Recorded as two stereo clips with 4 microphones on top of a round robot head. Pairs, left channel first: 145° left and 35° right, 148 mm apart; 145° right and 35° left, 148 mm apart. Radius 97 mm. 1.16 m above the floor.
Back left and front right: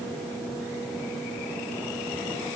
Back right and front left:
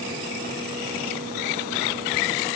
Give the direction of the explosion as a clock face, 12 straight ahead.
I don't hear an explosion.